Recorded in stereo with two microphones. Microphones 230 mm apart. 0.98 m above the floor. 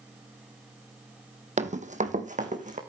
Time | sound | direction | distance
1.6 | running footsteps | 30° right (ahead or behind) | 1.7 m